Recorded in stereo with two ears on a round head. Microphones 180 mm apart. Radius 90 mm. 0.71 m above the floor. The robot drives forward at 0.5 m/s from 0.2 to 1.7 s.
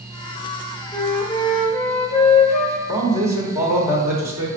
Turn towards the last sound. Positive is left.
turn(degrees=-15)  # may be behind; listen again after turning